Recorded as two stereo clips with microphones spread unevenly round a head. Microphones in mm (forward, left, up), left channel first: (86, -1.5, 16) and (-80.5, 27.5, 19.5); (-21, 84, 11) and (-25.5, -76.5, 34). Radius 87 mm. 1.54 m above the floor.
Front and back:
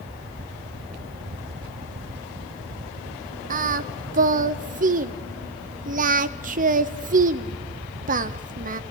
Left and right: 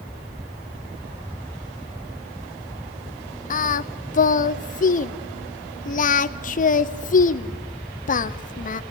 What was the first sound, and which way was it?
Singing, 125° left.